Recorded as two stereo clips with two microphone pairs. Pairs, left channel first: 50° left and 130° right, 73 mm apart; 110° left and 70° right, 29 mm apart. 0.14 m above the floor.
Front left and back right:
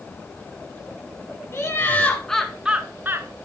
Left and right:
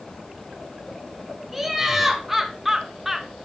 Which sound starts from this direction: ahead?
Laughter, at 1.5 s.